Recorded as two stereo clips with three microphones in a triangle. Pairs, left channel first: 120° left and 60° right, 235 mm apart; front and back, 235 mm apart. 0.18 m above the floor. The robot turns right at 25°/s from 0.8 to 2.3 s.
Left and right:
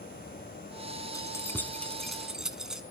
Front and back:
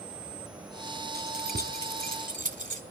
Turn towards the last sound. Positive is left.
turn(degrees=-145)